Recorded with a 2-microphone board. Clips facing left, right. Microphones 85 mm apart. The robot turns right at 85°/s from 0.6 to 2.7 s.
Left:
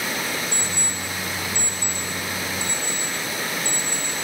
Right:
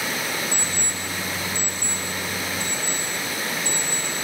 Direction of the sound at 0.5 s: 40° left (ahead or behind).